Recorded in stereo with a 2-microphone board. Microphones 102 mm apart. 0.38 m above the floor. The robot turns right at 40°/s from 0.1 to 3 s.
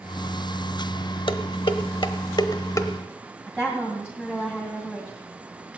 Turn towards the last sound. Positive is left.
turn(degrees=-5)  # may be behind; listen again after turning